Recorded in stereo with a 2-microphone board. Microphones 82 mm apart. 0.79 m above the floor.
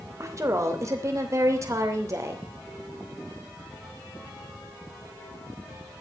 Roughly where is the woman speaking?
Right.